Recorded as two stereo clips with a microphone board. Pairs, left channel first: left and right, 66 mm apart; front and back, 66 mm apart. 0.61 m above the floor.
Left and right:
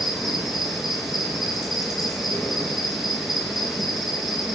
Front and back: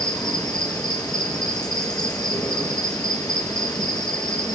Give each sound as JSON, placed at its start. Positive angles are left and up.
{"t": 0.0, "sound": "an insect", "azimuth_deg": -5, "distance_m": 5.0}